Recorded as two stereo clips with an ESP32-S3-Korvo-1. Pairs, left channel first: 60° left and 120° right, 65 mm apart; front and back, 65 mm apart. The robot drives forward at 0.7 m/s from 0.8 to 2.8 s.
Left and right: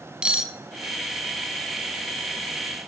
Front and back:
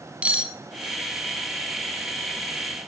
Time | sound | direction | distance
0.2 | cutlery clinking | 170° right | 0.6 m